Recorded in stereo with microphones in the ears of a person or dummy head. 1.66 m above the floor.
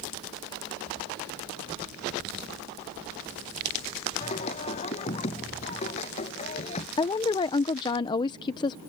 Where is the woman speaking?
25° left (ahead or behind).